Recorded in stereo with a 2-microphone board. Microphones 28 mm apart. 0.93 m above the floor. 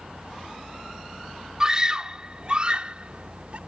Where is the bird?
I don't hear a bird.